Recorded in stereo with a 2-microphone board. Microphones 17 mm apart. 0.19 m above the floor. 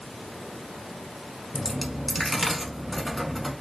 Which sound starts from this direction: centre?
A dropped coin, at 1.5 s.